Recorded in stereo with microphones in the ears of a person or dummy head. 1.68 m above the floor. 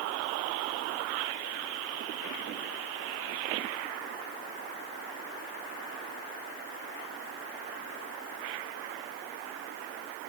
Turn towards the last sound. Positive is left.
No sound to turn to.